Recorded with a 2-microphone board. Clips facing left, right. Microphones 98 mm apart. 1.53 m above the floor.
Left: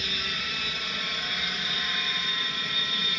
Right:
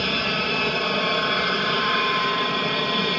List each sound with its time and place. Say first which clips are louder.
0.0 s an aircraft: right 11 dB; 60° right (ahead or behind)